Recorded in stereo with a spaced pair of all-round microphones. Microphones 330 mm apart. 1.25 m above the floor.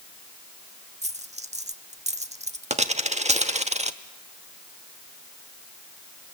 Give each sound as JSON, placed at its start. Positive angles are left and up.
{"t": 1.0, "sound": "a dropped coin", "side_deg": -20, "distance_m": 1.0}